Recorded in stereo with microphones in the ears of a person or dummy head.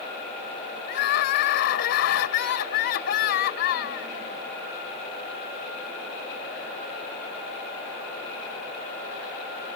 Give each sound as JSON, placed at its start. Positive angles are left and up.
{"t": 0.9, "sound": "crying", "side_deg": 60}